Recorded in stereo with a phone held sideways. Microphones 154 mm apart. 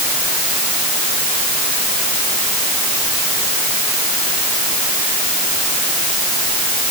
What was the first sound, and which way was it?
Only background noise.